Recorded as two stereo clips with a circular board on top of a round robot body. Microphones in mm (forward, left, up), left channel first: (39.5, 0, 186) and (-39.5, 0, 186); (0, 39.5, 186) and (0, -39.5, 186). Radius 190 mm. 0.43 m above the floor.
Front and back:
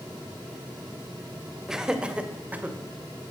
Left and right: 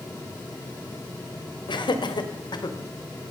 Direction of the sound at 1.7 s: 95° left.